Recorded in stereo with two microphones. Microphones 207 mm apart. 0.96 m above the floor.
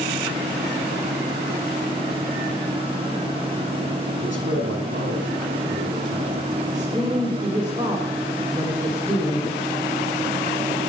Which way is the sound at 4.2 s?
75° right (ahead or behind).